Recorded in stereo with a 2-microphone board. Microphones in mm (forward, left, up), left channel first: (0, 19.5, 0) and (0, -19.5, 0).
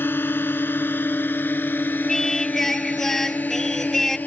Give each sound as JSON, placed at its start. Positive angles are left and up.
{"t": 0.0, "sound": "a drone", "side_deg": 60}
{"t": 2.1, "sound": "singing", "side_deg": 10}